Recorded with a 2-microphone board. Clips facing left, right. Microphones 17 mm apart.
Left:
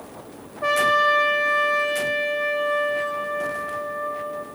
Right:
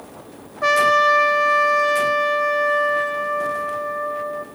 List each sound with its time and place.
0.6 s a trumpet: 50° right (ahead or behind), 2.5 m